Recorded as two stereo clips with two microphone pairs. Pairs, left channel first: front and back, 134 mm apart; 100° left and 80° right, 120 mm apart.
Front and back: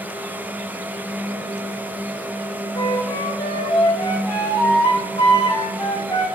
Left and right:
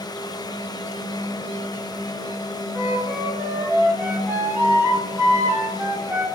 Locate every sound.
2.8 s a flute: 30° right, 0.7 m